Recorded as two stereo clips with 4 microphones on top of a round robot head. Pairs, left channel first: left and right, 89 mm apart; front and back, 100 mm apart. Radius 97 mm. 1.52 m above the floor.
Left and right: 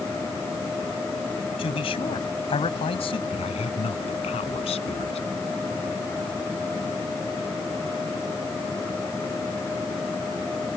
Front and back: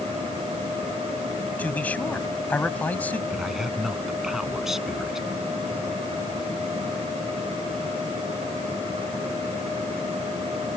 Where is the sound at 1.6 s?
75° left.